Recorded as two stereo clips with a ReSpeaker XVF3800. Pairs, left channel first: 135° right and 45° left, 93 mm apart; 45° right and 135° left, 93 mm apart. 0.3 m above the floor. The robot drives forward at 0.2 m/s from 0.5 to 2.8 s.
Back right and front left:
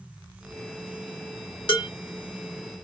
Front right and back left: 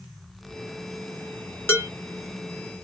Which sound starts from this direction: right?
Dishes clattering, at 1.7 s.